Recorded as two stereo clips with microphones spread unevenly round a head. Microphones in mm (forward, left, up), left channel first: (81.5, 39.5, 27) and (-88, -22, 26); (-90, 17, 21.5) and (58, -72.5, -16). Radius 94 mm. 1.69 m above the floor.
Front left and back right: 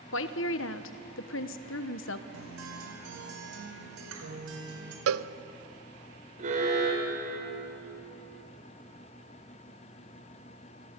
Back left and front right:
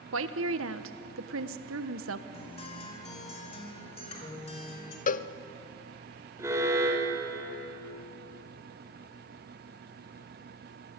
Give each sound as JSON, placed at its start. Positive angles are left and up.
{"t": 0.1, "sound": "a woman speaking", "azimuth_deg": -5, "distance_m": 1.2}
{"t": 2.3, "sound": "a guitar", "azimuth_deg": -160, "distance_m": 4.0}
{"t": 5.1, "sound": "a cowbell", "azimuth_deg": -165, "distance_m": 0.6}
{"t": 6.4, "sound": "an alarm", "azimuth_deg": -110, "distance_m": 4.5}